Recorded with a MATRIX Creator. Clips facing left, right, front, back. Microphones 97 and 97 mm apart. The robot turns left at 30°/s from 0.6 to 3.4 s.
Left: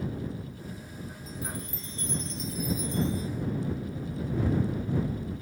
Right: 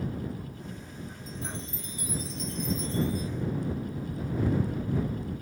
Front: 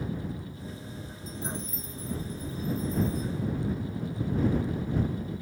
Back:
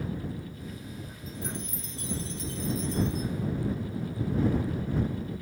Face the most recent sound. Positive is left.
turn(degrees=150)